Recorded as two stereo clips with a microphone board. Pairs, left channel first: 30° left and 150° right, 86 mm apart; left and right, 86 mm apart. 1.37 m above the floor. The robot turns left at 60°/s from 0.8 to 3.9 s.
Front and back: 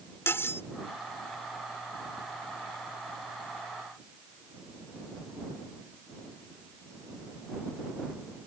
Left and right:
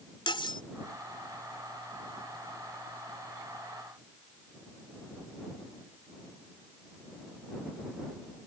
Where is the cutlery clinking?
90° left.